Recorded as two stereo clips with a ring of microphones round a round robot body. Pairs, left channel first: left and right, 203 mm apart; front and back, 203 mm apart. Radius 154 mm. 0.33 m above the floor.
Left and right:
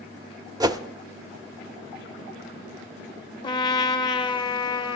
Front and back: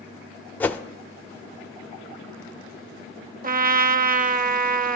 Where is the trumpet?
150° left, 0.6 m.